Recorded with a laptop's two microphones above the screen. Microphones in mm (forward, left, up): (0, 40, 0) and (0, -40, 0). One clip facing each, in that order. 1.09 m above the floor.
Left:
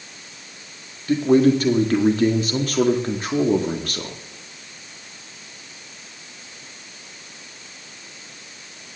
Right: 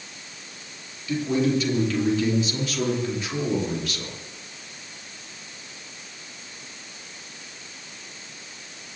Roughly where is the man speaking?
Left.